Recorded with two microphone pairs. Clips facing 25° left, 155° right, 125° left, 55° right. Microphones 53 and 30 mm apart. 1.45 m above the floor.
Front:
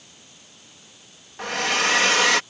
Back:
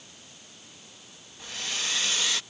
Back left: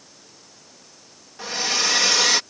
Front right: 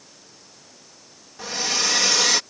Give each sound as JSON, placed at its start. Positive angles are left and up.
{"t": 1.4, "sound": "a hair dryer", "azimuth_deg": 45}